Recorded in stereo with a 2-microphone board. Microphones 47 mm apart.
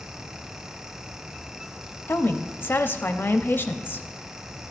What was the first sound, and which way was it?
A woman speaking, 50° left (ahead or behind).